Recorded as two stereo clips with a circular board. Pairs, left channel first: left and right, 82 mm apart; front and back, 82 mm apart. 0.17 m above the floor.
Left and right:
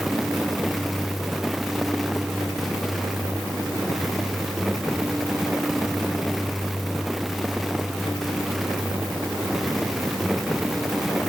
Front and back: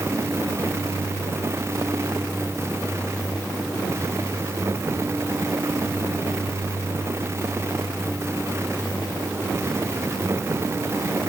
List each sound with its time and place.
Only background noise.